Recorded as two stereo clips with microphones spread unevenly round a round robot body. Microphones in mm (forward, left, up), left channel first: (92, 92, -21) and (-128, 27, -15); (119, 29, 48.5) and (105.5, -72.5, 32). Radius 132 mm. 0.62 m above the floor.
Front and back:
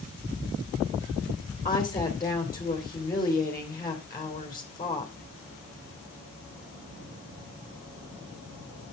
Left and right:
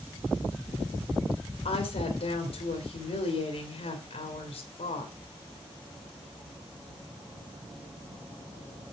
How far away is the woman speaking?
About 2.5 m.